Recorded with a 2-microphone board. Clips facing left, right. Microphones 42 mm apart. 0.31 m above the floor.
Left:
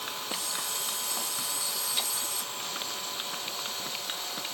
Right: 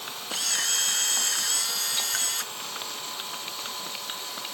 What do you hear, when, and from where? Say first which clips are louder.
0.3 s a camera shutter: right 10 dB; 70° right (ahead or behind)